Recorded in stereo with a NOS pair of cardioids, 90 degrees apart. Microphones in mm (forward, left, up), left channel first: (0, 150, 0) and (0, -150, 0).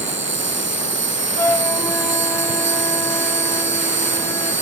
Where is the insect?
40° right.